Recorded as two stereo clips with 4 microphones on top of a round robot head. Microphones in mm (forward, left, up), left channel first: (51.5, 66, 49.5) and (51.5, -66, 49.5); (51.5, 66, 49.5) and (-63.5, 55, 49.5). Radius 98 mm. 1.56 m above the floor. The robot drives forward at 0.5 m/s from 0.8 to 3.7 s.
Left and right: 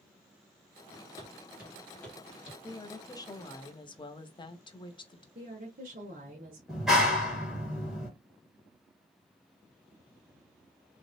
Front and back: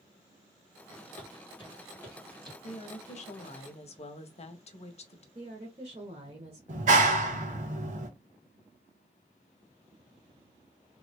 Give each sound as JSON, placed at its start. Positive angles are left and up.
{"t": 1.2, "sound": "footsteps", "azimuth_deg": -30, "distance_m": 2.0}
{"t": 2.6, "sound": "a woman speaking", "azimuth_deg": 25, "distance_m": 1.4}
{"t": 5.3, "sound": "a woman speaking", "azimuth_deg": -125, "distance_m": 1.3}
{"t": 6.7, "sound": "a clap", "azimuth_deg": 180, "distance_m": 1.5}